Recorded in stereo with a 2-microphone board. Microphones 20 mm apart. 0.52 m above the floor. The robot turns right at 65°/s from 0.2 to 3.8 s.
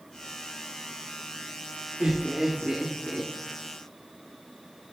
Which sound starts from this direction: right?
Laughter, at 2.0 s.